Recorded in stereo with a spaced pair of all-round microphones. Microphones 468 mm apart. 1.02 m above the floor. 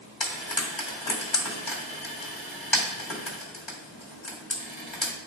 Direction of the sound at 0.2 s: 65° left (ahead or behind).